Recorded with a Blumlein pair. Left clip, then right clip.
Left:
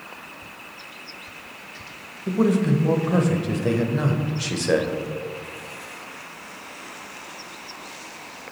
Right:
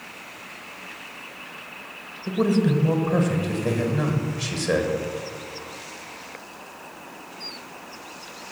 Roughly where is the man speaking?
Ahead.